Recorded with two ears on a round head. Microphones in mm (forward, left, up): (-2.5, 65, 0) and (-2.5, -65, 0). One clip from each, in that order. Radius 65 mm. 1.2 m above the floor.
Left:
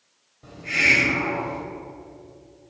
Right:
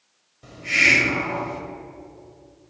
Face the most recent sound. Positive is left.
turn(degrees=-70)  # may be behind; listen again after turning